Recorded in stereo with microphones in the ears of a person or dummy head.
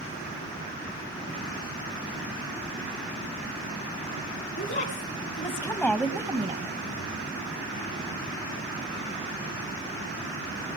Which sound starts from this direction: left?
A woman speaking, at 4.6 s.